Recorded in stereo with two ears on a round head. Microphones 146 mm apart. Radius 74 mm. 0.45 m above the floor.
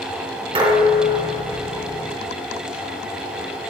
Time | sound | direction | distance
0.6 | dishes clattering | 30° right (ahead or behind) | 3.5 m